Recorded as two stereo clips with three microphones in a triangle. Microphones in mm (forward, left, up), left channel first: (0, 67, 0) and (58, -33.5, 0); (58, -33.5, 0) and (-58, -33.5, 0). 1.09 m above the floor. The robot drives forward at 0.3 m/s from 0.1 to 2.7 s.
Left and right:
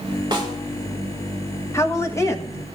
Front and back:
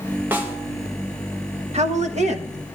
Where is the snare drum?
105° right, 1.6 m; by 0.6 s 110° right, 1.6 m.